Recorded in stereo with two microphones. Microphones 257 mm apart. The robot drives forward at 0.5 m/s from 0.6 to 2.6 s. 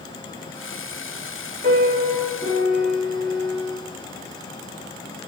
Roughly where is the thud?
No thud in this recording.